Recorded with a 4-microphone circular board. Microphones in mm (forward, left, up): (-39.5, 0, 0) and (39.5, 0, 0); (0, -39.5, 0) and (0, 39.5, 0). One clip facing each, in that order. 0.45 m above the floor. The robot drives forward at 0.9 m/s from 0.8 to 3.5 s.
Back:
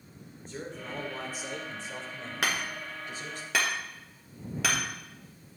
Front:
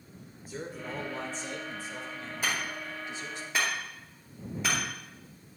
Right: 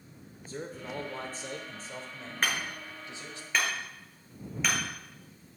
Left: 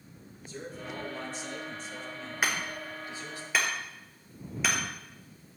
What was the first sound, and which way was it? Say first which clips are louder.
A man speaking: front 1 dB, right 1 dB; 80° right.